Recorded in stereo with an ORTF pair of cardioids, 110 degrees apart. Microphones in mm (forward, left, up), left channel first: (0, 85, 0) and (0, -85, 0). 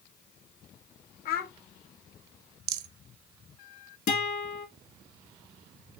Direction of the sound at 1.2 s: 65° left.